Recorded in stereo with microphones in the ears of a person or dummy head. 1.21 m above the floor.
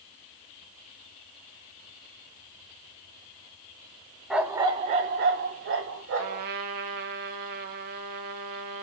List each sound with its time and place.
4.3 s a dog barking: 5° right (ahead or behind), 0.8 m; by 6.5 s 65° right (ahead or behind), 1.9 m
6.2 s a trumpet: 55° right (ahead or behind), 1.2 m